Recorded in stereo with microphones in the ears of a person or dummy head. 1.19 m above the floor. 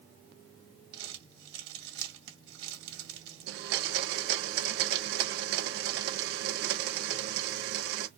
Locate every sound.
0.9 s crumpling: 75° right (ahead or behind), 2.0 m
3.5 s a blender: 65° right (ahead or behind), 1.2 m